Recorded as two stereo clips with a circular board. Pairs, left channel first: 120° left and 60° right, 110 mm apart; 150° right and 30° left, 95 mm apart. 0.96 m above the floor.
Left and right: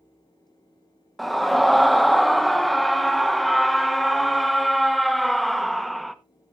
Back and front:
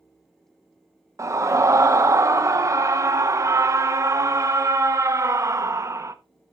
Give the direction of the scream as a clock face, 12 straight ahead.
11 o'clock.